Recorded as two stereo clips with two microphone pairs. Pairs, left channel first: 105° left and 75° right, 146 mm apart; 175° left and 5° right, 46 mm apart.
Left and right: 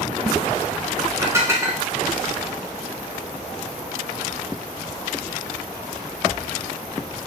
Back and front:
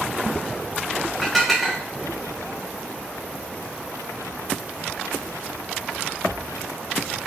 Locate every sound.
1.2 s dishes clattering: 105° right, 0.5 m